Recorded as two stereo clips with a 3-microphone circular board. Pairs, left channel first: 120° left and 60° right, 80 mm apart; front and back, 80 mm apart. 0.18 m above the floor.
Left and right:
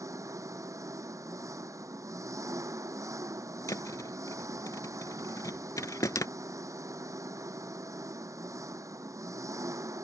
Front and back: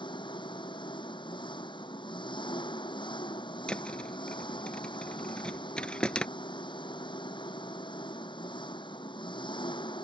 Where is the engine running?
10° right.